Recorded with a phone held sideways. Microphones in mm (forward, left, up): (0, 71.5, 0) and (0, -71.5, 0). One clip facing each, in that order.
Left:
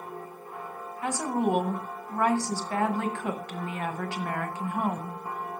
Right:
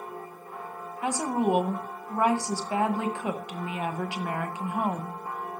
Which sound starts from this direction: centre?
A woman speaking, at 1.0 s.